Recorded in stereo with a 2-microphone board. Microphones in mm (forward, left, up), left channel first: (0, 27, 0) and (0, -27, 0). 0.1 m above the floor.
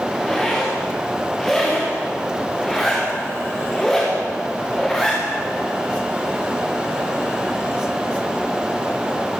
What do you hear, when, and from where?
0.1 s a zipper: 5° left (ahead or behind), 8.5 m